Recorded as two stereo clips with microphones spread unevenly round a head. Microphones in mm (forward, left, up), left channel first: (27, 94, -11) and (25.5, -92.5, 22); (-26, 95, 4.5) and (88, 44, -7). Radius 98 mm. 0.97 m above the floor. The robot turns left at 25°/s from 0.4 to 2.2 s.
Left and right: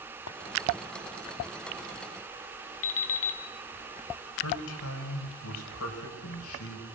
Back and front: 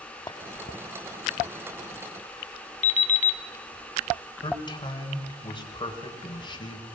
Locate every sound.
0.3 s a clink: 100° left, 1.3 m
2.8 s an alarm clock: 120° left, 1.7 m
4.4 s a man speaking: 100° left, 4.5 m